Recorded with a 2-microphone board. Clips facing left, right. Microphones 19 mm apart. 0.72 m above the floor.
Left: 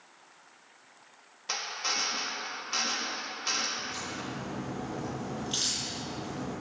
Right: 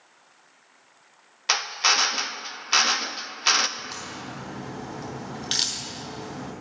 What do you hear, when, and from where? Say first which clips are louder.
1.5 s a drill: right 10 dB; 50° right (ahead or behind), 0.5 m
3.8 s a crack: right 1 dB; 90° right, 2.5 m